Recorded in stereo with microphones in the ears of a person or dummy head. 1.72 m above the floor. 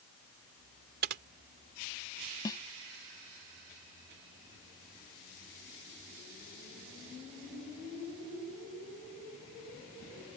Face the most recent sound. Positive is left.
turn(degrees=20)  # may be behind; listen again after turning